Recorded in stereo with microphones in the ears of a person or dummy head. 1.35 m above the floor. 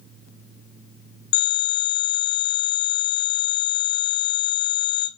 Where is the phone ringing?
60° left (ahead or behind), 1.8 m.